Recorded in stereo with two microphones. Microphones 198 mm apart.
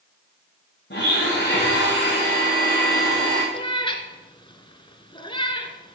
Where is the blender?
65° left (ahead or behind), 4.5 m.